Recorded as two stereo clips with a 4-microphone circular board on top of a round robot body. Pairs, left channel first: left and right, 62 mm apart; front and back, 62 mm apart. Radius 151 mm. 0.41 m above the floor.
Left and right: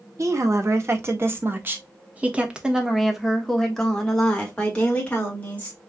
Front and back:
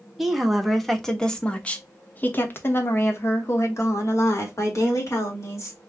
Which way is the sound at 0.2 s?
95° right.